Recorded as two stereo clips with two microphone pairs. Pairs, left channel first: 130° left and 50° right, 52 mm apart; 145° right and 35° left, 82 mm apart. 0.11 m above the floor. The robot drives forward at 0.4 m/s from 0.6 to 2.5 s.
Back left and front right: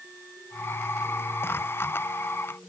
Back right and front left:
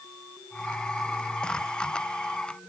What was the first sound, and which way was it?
Only background noise.